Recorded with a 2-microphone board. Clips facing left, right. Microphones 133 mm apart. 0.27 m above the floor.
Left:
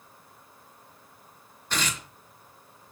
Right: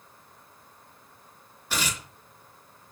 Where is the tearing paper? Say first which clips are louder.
Even; 10° right (ahead or behind), 4 m.